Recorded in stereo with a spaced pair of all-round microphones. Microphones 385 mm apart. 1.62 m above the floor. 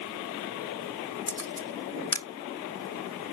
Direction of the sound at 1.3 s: 50° left (ahead or behind).